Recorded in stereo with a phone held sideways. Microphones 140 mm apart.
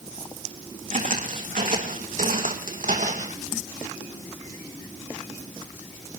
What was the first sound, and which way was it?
Footsteps, 65° right (ahead or behind).